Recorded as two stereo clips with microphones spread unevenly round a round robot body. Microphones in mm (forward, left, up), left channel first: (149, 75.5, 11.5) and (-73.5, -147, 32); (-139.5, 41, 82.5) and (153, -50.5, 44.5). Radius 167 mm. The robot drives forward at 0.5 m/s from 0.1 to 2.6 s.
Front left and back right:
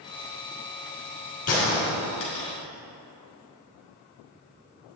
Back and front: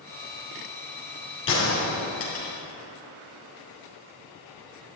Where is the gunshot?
110° left, 3 m; by 2.5 s 120° left, 3 m.